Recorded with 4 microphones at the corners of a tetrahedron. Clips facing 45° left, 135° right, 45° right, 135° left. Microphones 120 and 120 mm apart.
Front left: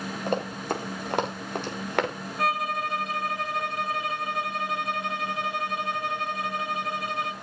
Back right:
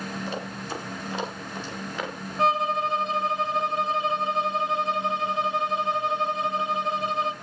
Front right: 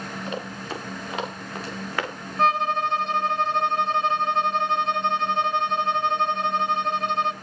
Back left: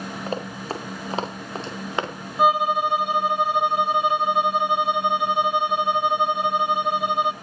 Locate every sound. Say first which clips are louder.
0.3 s running footsteps: front left 5 dB, back left 4 dB; 80° left, 5.5 m; by 2.1 s 65° left, 3.5 m
2.4 s a violin: back right 4 dB, back left 3 dB; 160° right, 1.3 m